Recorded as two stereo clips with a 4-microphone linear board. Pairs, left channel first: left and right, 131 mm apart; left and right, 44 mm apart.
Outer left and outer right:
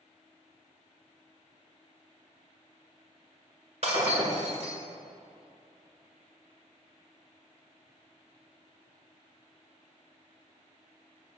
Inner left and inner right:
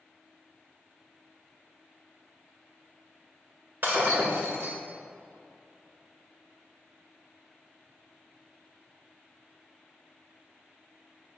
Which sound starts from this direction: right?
Breaking glass, at 3.8 s.